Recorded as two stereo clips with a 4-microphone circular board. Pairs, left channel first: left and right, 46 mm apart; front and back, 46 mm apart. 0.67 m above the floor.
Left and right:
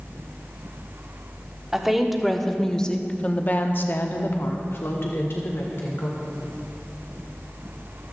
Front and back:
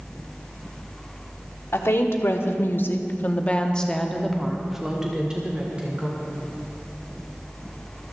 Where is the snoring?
I don't hear snoring.